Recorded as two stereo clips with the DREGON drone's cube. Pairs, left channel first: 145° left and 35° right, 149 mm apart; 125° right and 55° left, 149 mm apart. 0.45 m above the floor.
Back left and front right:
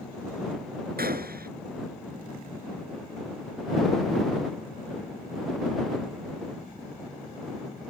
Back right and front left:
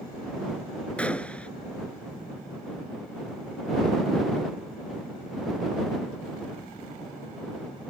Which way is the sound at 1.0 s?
40° right.